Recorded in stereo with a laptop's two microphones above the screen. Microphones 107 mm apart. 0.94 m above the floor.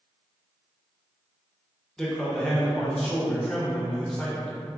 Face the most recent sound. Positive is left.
turn(degrees=5)  # may be behind; listen again after turning